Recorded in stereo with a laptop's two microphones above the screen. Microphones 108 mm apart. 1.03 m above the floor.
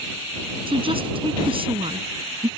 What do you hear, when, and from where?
0.7 s a woman speaking: 55° right (ahead or behind)